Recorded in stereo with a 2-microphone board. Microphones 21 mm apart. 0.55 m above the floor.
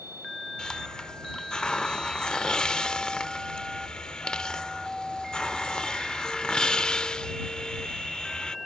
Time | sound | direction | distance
0.6 | a hiss | 45° left (ahead or behind) | ?